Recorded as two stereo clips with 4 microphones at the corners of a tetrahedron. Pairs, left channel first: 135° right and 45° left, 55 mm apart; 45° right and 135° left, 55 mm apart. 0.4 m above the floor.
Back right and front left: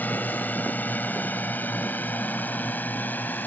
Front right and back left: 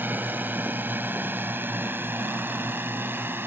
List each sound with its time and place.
0.0 s a drone: 175° left